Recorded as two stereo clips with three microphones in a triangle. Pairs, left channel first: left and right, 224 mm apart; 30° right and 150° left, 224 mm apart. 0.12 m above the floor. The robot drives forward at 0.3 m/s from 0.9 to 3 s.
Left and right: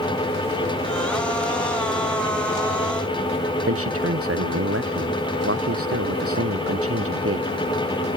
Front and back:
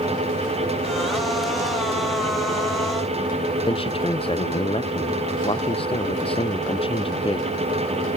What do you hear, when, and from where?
3.7 s a man speaking: 95° right